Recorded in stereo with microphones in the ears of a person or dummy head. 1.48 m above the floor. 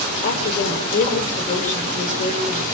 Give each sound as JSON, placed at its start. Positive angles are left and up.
{"t": 0.2, "sound": "a woman speaking", "side_deg": 35, "distance_m": 5.5}